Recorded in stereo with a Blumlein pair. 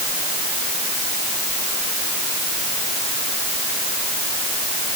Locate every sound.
Only background noise.